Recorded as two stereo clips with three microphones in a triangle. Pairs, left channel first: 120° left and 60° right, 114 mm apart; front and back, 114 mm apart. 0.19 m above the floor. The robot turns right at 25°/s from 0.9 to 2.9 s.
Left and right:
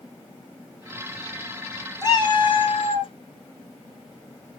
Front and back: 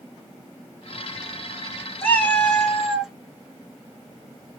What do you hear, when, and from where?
2.0 s a cat meowing: 70° left, 1.1 m; by 3.1 s 95° left, 1.1 m